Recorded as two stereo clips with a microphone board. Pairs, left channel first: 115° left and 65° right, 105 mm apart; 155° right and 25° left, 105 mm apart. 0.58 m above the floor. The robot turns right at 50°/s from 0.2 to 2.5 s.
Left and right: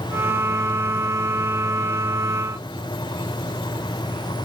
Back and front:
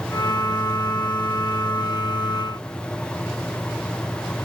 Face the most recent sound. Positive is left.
No sound to turn to.